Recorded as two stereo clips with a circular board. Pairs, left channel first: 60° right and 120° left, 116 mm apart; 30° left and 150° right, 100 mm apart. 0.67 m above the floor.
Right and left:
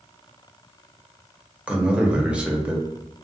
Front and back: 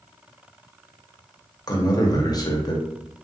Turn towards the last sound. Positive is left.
turn(degrees=45)